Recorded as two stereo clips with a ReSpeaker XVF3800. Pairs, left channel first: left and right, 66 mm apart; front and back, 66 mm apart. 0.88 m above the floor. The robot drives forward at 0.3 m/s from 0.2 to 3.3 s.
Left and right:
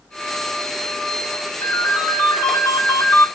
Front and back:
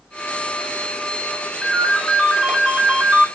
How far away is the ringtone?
About 0.7 m.